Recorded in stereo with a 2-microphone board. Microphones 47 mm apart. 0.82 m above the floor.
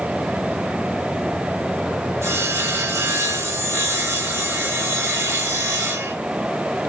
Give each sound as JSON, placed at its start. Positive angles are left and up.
{"t": 2.2, "sound": "sawing", "side_deg": -80, "distance_m": 7.5}